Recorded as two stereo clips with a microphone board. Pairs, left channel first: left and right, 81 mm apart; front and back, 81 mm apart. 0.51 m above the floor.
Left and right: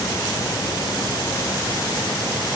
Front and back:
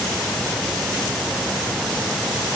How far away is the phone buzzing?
No phone buzzing in this recording.